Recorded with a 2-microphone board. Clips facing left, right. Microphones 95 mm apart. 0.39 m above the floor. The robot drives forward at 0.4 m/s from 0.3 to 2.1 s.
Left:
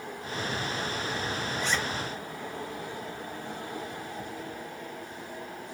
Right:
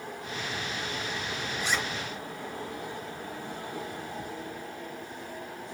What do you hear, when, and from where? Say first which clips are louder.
1.6 s a zipper: even; 10° right (ahead or behind), 2.5 m